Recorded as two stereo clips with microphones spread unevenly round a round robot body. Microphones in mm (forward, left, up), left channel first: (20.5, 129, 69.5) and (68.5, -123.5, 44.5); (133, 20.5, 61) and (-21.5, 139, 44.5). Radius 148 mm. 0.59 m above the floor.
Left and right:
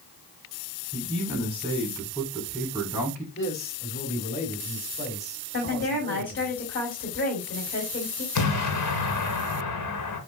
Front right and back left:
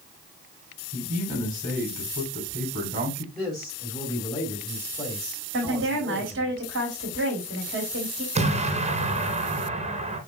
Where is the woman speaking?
155° left, 3.5 m.